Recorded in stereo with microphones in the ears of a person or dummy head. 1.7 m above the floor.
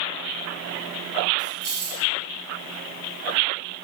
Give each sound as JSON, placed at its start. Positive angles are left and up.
{"t": 1.4, "sound": "keys jangling", "side_deg": 5, "distance_m": 1.9}